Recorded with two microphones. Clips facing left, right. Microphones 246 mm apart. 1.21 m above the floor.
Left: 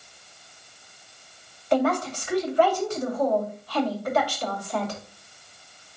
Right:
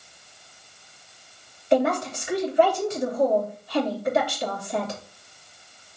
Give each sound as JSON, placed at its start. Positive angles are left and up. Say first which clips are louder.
{"t": 1.7, "sound": "a woman speaking", "louder": "right 1 dB", "side_deg": -25, "distance_m": 2.5}